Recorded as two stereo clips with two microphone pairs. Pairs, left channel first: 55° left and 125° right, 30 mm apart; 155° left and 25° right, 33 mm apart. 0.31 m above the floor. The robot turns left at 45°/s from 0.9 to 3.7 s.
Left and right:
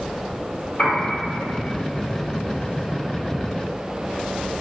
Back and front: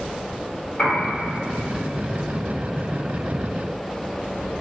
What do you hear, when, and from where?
0.8 s a piano: 95° left, 1.7 m; by 1.1 s 90° left, 1.7 m